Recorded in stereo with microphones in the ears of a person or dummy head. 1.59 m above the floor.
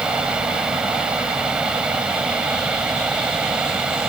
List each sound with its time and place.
0.0 s a fan: 5° right (ahead or behind)